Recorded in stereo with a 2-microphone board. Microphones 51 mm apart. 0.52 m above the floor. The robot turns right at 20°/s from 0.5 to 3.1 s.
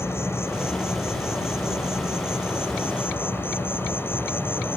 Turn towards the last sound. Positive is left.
turn(degrees=125)